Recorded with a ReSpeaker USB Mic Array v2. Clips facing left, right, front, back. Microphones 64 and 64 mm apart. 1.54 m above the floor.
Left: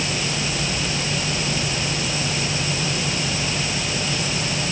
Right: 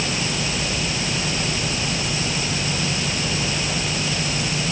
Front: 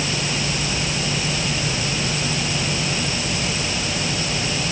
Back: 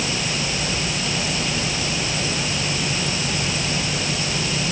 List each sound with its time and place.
Only background noise.